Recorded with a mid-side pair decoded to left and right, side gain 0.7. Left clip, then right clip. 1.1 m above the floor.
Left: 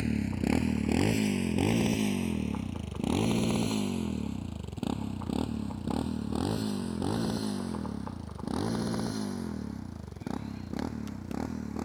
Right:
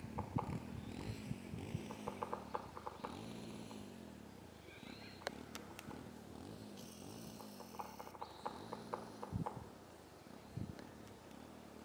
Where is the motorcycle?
65° left.